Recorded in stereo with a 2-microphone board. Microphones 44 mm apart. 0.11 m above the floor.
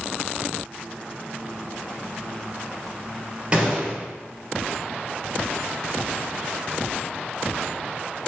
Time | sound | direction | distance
3.5 | a gunshot | 25° right (ahead or behind) | 2.5 m